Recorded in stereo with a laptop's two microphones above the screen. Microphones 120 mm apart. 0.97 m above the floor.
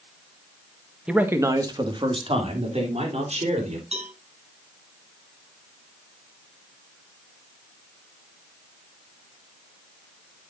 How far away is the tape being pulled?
No tape being pulled in this recording.